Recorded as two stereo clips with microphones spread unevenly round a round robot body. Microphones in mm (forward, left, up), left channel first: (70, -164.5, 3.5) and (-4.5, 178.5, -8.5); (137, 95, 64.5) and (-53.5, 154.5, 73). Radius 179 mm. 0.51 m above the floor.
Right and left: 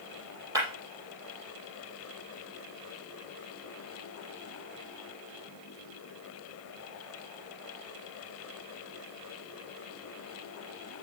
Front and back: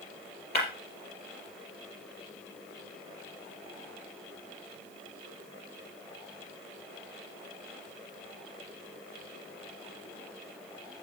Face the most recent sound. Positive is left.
turn(degrees=20)